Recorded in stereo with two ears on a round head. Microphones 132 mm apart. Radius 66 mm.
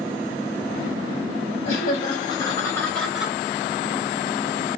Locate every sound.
1.6 s laughter: 60° left (ahead or behind), 1.3 m; by 3.4 s 15° right (ahead or behind), 0.9 m